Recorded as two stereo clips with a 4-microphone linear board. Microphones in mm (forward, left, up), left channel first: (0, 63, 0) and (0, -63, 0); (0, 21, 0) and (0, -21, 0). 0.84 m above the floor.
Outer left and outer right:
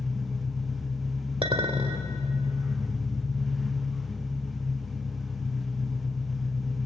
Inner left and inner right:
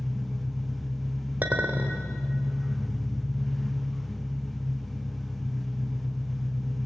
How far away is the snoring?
I don't hear snoring.